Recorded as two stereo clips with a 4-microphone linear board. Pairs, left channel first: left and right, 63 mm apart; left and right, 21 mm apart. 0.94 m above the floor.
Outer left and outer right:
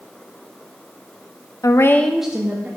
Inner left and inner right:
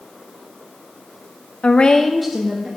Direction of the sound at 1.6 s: 60° left (ahead or behind).